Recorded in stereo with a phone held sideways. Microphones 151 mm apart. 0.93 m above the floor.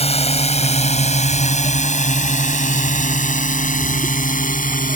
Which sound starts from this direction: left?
A drone, at 0.0 s.